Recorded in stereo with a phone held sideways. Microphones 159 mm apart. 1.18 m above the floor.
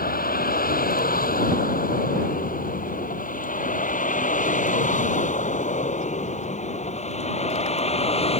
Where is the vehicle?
75° left (ahead or behind); by 8.4 s 40° left (ahead or behind).